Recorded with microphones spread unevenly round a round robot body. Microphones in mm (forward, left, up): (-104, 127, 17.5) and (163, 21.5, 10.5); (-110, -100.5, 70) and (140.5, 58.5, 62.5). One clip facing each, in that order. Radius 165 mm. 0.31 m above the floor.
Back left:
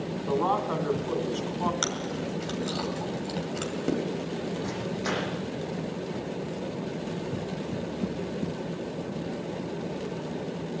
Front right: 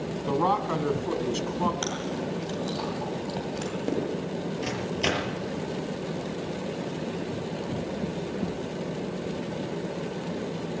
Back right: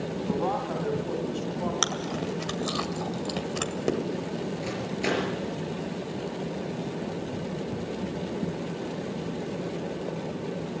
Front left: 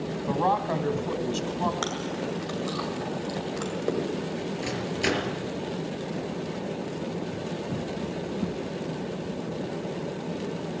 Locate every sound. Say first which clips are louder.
0.3 s a man speaking: front right 1 dB, front left 2 dB; 25° left, 2.5 m
1.8 s chewing: front right 1 dB, even; 130° right, 2 m
4.6 s a microwave: front right 2 dB, front left 3 dB; 30° right, 5.5 m